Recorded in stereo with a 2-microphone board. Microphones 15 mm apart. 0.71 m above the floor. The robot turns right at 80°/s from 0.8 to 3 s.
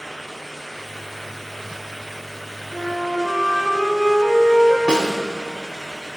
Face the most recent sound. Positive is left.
turn(degrees=-70)  # may be behind; listen again after turning